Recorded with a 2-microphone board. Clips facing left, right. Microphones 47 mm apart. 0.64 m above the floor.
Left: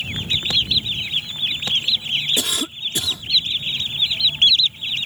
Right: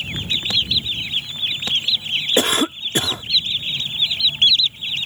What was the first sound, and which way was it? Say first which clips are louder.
A cough: right 6 dB; 45° right (ahead or behind).